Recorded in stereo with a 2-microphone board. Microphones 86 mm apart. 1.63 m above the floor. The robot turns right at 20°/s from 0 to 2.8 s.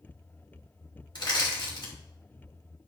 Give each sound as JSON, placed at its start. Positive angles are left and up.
{"t": 1.1, "sound": "crushing", "side_deg": 65, "distance_m": 3.0}